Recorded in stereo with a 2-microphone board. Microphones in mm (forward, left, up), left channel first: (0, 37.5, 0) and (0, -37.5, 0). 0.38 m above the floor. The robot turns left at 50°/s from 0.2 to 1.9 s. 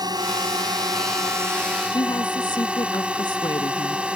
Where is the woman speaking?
75° left (ahead or behind).